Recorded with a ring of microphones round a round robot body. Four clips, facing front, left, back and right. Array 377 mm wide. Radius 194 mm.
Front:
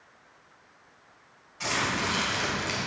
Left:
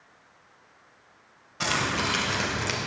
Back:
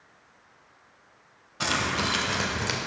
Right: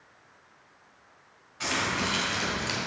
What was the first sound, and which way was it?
Keys jangling, 140° left.